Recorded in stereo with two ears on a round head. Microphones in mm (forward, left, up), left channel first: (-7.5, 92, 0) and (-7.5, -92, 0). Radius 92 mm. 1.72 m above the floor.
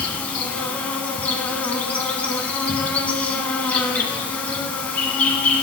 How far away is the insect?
About 1.0 m.